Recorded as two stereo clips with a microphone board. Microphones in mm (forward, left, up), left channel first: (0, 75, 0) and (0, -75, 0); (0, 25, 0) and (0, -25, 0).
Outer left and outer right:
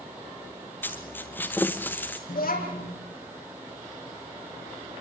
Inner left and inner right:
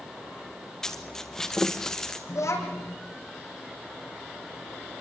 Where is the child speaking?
80° left, 6 m.